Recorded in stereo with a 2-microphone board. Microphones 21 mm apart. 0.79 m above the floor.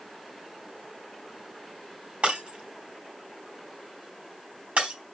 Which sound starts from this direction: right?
Breaking glass, at 2.2 s.